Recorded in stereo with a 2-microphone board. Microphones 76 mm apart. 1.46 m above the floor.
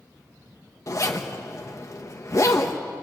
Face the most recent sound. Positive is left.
turn(degrees=45)  # may be behind; listen again after turning